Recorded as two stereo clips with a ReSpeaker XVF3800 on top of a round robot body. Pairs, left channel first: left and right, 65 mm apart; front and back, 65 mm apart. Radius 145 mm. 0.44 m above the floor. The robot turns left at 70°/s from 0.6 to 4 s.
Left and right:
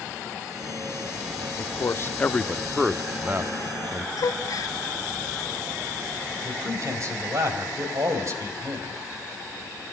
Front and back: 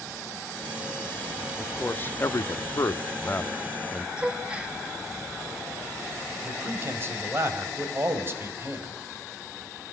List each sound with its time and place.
1.6 s a man speaking: 80° left, 1.0 m; by 4.1 s 90° right, 1.0 m
4.2 s a gasp: 110° left, 1.9 m
6.4 s a man speaking: 130° right, 3.5 m